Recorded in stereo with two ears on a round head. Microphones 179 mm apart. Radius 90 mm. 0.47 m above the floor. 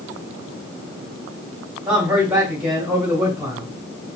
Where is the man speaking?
15° right (ahead or behind), 1.9 m.